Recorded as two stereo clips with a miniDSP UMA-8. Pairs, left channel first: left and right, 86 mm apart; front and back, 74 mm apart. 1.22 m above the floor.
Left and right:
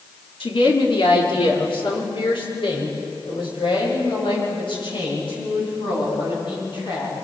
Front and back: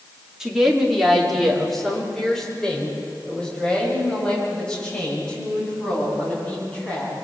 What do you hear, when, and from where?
0.4 s a woman speaking: 95° left, 3 m; by 7.1 s 75° left, 12.5 m